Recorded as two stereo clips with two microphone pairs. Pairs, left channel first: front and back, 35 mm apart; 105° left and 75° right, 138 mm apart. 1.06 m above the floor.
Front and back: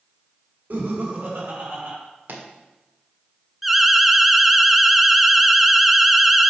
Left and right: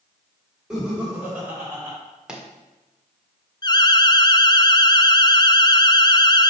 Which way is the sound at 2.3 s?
160° right.